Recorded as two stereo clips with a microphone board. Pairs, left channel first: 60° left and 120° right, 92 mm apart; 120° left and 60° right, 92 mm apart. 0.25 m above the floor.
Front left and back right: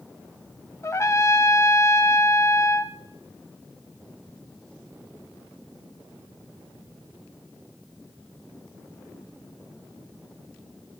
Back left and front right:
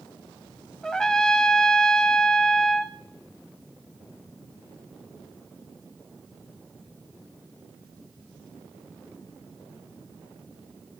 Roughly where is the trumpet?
Ahead left.